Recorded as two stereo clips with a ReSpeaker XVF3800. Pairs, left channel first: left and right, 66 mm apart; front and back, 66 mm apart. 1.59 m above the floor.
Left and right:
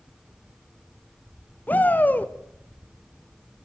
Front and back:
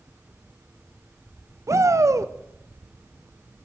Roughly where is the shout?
Behind left.